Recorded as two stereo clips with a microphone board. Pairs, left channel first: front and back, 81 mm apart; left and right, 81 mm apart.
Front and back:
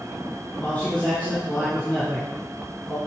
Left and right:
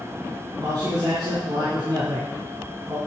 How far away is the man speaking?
About 4 m.